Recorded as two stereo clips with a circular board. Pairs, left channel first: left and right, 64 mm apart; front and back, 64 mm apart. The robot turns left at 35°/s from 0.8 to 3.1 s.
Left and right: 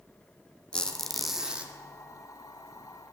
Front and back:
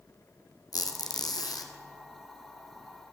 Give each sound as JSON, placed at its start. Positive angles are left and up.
{"t": 0.7, "sound": "a squeak", "azimuth_deg": 10, "distance_m": 1.2}